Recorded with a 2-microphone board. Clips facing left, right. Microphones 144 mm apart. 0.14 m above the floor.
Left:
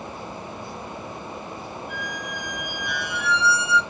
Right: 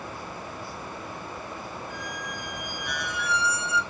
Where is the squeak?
40° right (ahead or behind), 2.5 m.